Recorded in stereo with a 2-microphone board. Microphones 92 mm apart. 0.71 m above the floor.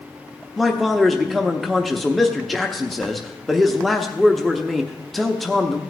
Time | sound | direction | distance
0.6 | a man speaking | centre (ahead or behind) | 0.8 m